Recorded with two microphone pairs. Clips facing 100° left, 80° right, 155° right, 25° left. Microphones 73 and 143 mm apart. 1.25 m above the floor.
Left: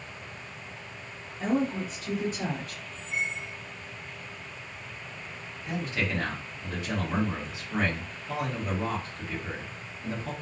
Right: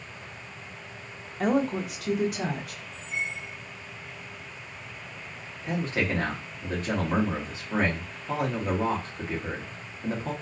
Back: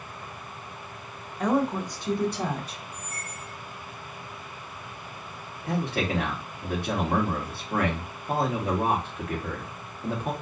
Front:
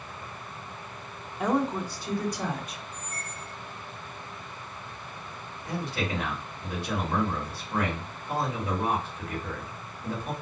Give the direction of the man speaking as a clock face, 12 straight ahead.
4 o'clock.